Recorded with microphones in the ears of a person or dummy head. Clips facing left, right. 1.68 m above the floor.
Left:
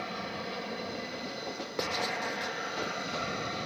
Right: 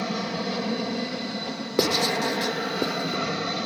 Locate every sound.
0.0 s an aircraft: 65° right (ahead or behind)
1.8 s writing: 65° right (ahead or behind)